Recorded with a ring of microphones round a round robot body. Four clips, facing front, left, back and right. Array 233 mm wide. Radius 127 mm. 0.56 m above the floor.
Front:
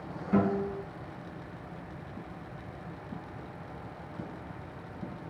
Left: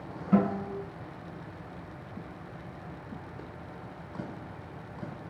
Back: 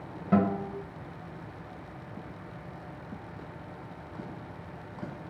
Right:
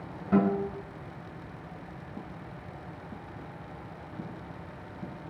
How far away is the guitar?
About 1.3 m.